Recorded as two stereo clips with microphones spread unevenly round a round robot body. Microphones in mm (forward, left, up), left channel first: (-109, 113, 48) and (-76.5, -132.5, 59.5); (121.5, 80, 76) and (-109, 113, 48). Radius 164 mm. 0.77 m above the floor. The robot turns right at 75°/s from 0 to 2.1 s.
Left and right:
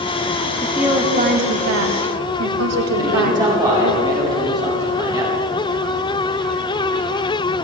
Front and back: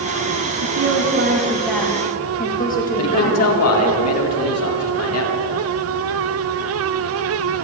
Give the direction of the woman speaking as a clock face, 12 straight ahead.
6 o'clock.